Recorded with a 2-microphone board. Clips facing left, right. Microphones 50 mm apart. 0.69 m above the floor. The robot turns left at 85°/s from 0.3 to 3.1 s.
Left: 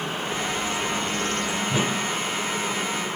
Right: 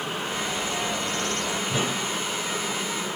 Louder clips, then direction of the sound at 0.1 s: Left 1 dB; 5° left.